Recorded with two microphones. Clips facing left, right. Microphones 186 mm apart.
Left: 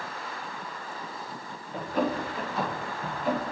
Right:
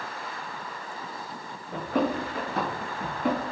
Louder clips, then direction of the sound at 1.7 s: Right 2 dB; 65° right (ahead or behind).